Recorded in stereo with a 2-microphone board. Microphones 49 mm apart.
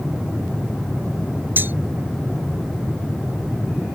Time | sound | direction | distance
1.6 | cutlery clinking | 45° right (ahead or behind) | ?